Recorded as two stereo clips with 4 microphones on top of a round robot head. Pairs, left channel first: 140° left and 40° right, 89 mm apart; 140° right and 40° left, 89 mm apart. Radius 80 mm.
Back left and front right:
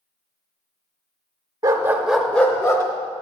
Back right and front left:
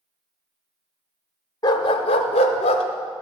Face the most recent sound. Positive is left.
turn(degrees=-160)